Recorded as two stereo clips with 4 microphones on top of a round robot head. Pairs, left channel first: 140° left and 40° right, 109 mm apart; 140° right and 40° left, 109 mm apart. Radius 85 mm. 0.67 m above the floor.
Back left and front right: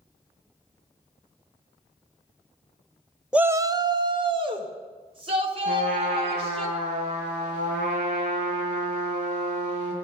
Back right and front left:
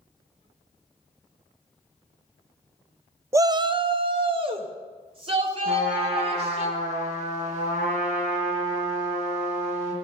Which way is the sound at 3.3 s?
35° left.